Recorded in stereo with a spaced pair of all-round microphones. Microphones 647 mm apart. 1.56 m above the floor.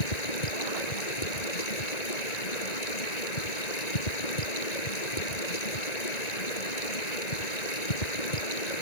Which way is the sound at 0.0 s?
85° left.